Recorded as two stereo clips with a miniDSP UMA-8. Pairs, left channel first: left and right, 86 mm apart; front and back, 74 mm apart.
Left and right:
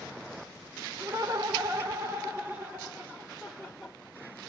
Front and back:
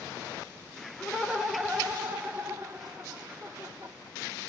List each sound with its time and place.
1.0 s laughter: 85° right, 1.6 m; by 4.0 s straight behind, 1.7 m